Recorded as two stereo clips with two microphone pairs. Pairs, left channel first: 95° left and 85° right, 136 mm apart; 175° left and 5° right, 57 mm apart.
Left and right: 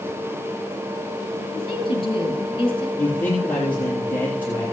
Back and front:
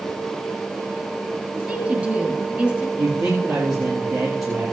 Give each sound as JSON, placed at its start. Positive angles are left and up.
{"t": 1.6, "sound": "a woman speaking", "azimuth_deg": 55, "distance_m": 2.5}
{"t": 3.0, "sound": "a man speaking", "azimuth_deg": 20, "distance_m": 4.0}